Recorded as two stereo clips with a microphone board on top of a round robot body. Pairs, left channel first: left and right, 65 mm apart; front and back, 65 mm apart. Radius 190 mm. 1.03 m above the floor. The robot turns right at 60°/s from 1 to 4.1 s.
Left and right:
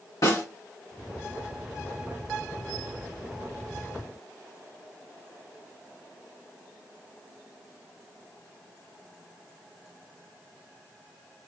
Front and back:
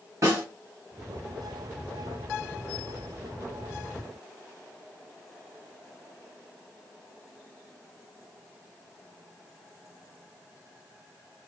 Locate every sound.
0.2 s a snare drum: 130° left, 1.3 m